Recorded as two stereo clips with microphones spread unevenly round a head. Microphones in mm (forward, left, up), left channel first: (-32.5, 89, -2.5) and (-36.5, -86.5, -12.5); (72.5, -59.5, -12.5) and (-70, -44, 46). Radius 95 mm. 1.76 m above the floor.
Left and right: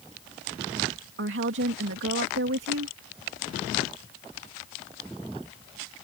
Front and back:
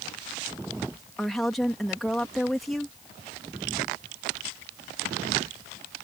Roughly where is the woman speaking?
Right.